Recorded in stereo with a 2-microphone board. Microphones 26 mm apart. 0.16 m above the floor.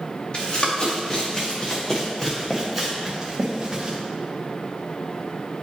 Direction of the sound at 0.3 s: 35° left (ahead or behind).